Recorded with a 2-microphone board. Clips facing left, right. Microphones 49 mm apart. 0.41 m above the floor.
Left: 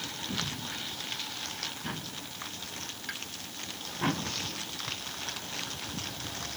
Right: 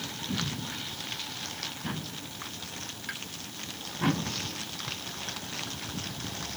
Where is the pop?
Centre (ahead or behind).